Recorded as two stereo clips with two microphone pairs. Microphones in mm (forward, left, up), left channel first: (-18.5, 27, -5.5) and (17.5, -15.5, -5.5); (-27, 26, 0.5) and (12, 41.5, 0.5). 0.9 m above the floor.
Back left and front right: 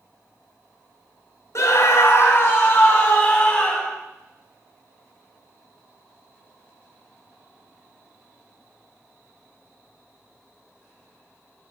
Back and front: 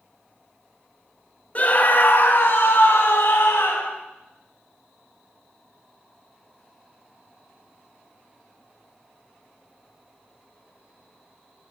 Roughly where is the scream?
Behind left.